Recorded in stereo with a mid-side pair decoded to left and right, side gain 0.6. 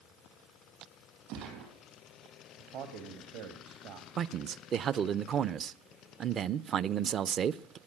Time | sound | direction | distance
1.3 | a gunshot | 70° right | 4.5 m
2.6 | a man speaking | 70° right | 1.7 m
4.2 | a man speaking | 45° right | 0.6 m